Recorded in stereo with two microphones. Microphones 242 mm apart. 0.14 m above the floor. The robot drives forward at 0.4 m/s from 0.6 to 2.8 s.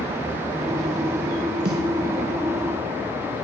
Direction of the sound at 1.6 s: 45° right (ahead or behind).